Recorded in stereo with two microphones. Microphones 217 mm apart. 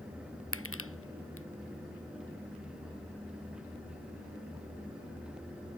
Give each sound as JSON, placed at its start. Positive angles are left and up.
{"t": 0.5, "sound": "crushing", "side_deg": 75}